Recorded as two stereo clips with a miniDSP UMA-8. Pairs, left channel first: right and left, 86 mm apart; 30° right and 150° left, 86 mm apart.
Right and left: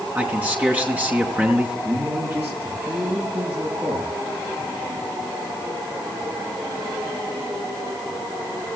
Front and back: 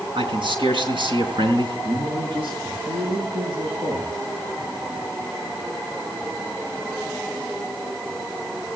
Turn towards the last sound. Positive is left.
turn(degrees=160)